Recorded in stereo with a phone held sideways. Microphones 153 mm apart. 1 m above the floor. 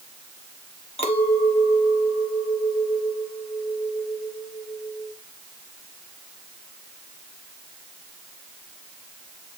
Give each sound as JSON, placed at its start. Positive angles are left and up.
{"t": 1.0, "sound": "a clink", "side_deg": 40, "distance_m": 1.4}